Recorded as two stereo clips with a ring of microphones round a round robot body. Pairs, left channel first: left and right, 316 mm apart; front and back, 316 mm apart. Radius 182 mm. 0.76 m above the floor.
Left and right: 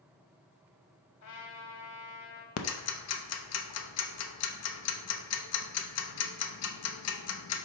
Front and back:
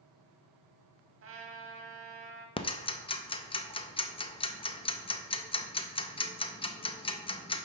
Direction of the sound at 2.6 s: 70° left.